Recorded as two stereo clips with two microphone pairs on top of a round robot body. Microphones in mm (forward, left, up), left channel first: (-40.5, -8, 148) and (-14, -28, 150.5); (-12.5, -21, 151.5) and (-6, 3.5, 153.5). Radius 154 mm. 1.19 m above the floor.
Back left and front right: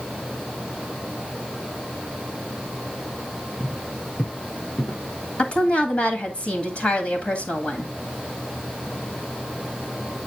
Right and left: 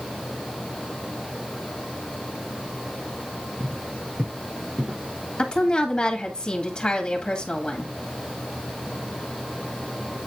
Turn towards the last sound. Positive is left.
turn(degrees=-170)